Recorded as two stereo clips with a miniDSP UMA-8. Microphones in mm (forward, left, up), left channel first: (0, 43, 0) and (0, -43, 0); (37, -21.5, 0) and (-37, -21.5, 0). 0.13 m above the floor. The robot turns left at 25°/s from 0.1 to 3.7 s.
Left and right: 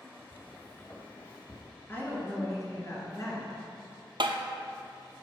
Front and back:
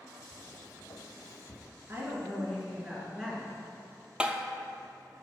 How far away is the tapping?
About 0.6 m.